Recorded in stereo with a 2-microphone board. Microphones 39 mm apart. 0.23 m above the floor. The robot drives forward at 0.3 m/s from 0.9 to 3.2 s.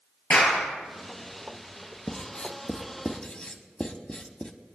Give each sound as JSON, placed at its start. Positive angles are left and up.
{"t": 0.3, "sound": "a clap", "side_deg": 40, "distance_m": 3.5}
{"t": 2.1, "sound": "writing", "side_deg": 30, "distance_m": 0.7}